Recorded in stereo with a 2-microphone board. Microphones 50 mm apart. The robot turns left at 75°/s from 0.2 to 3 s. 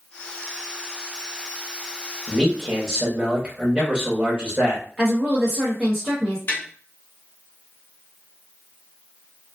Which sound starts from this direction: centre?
A woman speaking, at 5.0 s.